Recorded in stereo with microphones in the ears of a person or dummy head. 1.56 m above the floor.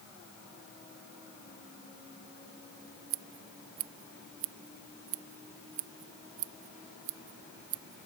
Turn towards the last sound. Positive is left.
turn(degrees=-40)  # may be behind; listen again after turning